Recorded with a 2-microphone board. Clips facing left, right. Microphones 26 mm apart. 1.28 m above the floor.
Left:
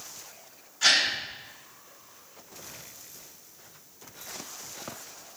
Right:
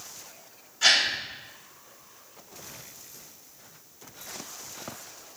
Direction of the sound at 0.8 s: 5° left (ahead or behind).